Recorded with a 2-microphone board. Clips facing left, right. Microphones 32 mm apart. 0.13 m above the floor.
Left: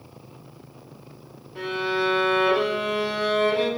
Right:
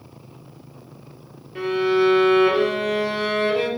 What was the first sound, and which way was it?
A violin, 45° right (ahead or behind).